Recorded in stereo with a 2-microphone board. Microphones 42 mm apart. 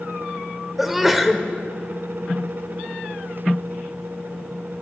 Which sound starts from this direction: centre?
A sneeze, at 0.8 s.